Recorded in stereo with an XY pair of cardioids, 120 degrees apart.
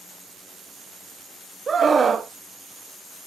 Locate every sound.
1.7 s a scream: 30° right, 1.1 m